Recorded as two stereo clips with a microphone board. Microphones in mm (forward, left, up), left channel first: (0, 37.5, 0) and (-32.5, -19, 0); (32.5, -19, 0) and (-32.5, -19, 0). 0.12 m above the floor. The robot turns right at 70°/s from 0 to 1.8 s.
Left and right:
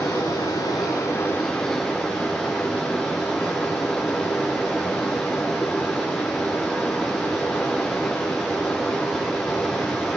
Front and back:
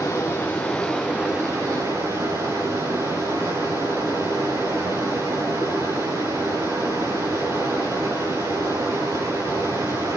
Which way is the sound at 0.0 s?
25° left.